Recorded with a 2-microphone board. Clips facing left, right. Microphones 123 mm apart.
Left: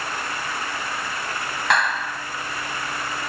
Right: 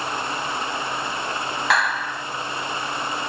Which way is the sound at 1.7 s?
Centre (ahead or behind).